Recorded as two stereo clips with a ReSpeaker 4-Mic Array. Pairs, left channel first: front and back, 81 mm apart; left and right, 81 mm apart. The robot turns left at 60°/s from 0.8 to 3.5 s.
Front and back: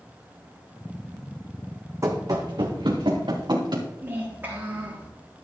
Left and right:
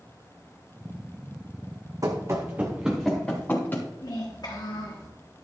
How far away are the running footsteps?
About 1.8 m.